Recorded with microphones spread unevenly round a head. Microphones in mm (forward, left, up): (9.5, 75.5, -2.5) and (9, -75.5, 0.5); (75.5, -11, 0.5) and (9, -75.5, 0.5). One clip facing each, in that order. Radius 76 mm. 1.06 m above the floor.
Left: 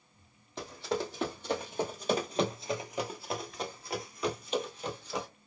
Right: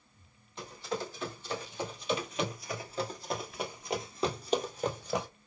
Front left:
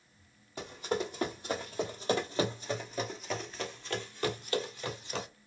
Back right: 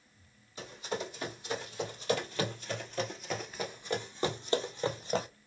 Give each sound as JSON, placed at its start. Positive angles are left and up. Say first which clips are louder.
{"t": 0.6, "sound": "running footsteps", "louder": "left 3 dB, front left 4 dB", "azimuth_deg": 90, "distance_m": 1.9}